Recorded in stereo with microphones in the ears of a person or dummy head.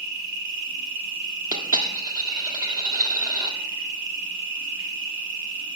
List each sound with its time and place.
0.0 s an insect: 70° right (ahead or behind), 1.9 m
1.5 s a dropped coin: 20° right (ahead or behind), 1.4 m